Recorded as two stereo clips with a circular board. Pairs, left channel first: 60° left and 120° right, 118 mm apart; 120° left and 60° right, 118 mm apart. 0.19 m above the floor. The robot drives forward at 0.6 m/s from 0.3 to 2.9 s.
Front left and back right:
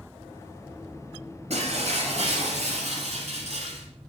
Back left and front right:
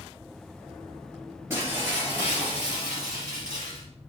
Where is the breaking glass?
130° right, 2.5 m; by 3.9 s 140° right, 3 m.